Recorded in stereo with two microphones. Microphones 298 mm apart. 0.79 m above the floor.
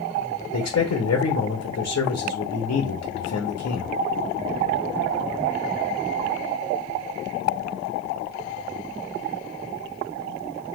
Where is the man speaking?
55° left (ahead or behind), 0.7 m.